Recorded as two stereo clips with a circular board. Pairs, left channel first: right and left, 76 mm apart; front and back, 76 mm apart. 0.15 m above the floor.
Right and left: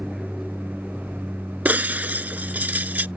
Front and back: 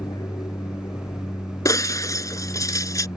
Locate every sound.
0.0 s an aircraft: straight ahead
1.6 s breaking glass: 25° left